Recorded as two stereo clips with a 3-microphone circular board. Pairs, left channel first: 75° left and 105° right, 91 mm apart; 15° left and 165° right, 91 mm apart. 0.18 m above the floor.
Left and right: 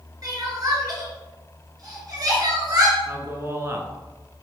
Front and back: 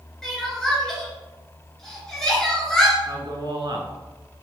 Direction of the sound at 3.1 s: 160° right.